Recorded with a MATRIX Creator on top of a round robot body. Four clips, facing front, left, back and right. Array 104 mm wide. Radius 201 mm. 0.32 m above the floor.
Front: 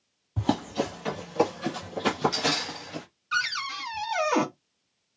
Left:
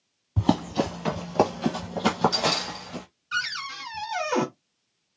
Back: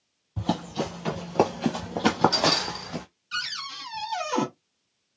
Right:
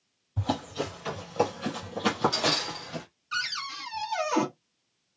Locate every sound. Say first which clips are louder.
0.4 s running footsteps: left 7 dB, front 1 dB; 70° left, 0.7 m; by 3.0 s 175° right, 1.2 m
3.3 s a cupboard door: left 3 dB, front 6 dB; 10° left, 1.5 m